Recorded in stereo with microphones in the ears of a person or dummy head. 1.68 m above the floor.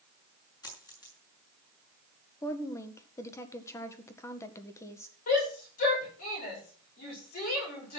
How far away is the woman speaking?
About 1.7 m.